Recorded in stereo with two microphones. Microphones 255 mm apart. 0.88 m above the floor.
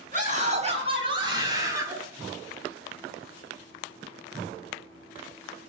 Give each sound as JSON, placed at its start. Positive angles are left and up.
{"t": 0.1, "sound": "a scream", "side_deg": -30, "distance_m": 6.0}